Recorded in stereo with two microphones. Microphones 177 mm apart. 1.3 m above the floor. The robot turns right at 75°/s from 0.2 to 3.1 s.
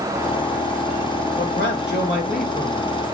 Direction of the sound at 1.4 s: 55° left.